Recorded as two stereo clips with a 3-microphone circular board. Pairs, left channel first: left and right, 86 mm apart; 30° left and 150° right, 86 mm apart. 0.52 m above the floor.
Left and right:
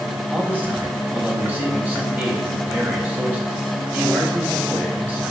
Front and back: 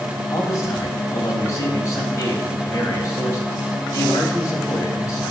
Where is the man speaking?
20° right, 3 m.